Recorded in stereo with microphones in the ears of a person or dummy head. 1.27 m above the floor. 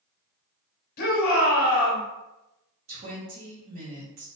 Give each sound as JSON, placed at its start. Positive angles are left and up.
{"t": 1.0, "sound": "a shout", "side_deg": 40, "distance_m": 1.1}
{"t": 2.9, "sound": "a woman speaking", "side_deg": -45, "distance_m": 1.1}